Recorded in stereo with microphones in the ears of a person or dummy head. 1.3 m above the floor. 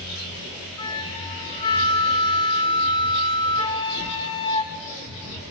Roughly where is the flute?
Left.